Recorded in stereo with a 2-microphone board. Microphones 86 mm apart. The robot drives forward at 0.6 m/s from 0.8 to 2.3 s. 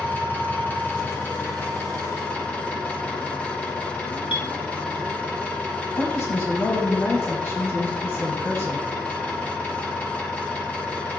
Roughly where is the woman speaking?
Left.